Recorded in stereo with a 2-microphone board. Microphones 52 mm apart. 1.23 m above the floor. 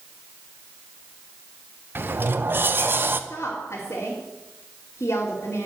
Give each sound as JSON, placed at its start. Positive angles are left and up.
{"t": 1.9, "sound": "a sliding door", "side_deg": -45, "distance_m": 0.7}
{"t": 3.3, "sound": "a woman speaking", "side_deg": 65, "distance_m": 3.0}